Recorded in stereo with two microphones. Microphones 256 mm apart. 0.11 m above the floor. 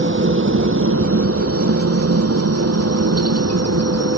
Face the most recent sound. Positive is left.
turn(degrees=-70)  # may be behind; listen again after turning